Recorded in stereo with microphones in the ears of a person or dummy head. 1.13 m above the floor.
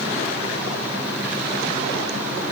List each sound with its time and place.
Only background noise.